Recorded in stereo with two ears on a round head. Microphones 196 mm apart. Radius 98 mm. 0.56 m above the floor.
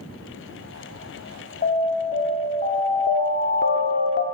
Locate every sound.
1.6 s an alarm: 35° left (ahead or behind), 2 m
3.1 s an alarm: 50° left (ahead or behind), 0.6 m